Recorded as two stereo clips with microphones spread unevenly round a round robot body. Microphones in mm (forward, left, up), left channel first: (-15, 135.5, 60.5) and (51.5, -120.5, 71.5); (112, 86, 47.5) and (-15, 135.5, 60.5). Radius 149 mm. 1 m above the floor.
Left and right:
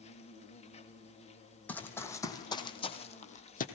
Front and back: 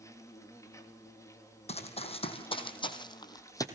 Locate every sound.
0.0 s an insect: 40° left, 3 m
1.7 s running footsteps: 20° left, 3.5 m; by 3.6 s 45° left, 2.5 m